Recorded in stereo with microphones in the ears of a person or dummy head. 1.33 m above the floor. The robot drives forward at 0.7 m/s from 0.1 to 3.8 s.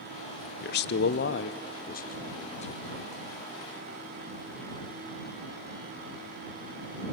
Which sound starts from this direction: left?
A man speaking, at 0.6 s.